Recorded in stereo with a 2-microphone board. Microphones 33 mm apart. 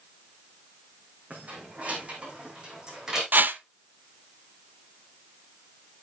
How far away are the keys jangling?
About 4 m.